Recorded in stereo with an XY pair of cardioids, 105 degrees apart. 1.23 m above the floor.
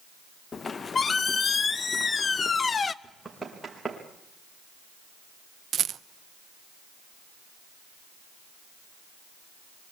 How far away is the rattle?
About 0.6 m.